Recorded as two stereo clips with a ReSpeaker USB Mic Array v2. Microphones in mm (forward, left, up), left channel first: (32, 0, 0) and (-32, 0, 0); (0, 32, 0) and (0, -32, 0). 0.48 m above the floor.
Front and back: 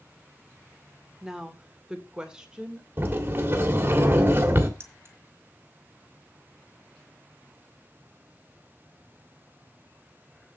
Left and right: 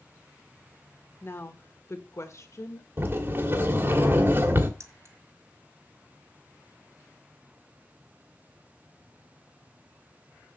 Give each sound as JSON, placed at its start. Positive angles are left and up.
{"t": 1.2, "sound": "a woman speaking", "azimuth_deg": 105, "distance_m": 1.5}
{"t": 3.0, "sound": "a sliding door", "azimuth_deg": -130, "distance_m": 1.8}
{"t": 4.8, "sound": "keys jangling", "azimuth_deg": -125, "distance_m": 1.7}